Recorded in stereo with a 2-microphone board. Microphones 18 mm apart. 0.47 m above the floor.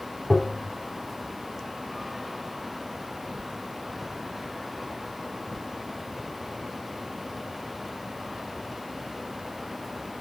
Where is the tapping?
Centre (ahead or behind), 1.2 m.